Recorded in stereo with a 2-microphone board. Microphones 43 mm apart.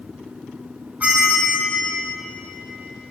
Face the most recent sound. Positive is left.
turn(degrees=-40)  # may be behind; listen again after turning